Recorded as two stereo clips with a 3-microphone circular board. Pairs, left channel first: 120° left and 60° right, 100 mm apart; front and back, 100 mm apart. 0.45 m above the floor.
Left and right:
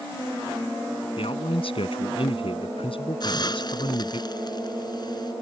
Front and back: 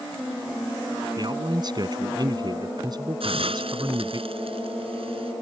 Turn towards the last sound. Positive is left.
turn(degrees=165)